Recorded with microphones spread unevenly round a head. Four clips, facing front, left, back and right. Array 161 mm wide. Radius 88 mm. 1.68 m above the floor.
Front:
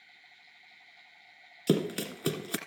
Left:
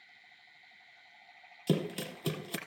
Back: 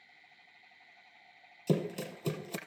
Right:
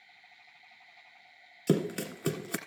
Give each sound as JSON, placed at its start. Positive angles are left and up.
{"t": 1.7, "sound": "running footsteps", "azimuth_deg": -25, "distance_m": 2.5}